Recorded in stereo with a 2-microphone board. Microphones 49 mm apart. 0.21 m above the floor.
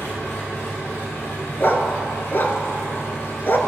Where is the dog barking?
50° left (ahead or behind), 0.7 m.